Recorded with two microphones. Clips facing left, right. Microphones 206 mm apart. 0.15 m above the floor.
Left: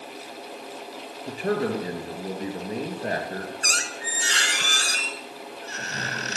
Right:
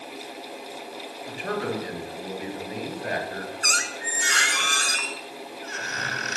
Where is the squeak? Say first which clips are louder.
Even; 30° left (ahead or behind), 1.0 m.